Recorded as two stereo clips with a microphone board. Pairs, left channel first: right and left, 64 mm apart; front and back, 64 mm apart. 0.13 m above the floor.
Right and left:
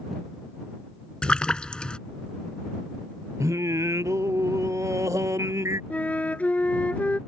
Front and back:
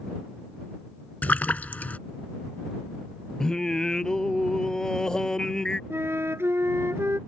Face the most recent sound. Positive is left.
turn(degrees=-150)